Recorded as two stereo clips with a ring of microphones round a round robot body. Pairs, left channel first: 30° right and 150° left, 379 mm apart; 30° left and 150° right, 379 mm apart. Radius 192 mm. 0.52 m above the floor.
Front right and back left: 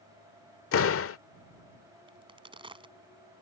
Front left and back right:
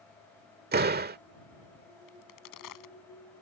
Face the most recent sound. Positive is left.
turn(degrees=70)